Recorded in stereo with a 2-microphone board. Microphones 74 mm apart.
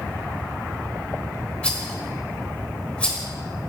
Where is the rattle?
15° left (ahead or behind), 1.4 m.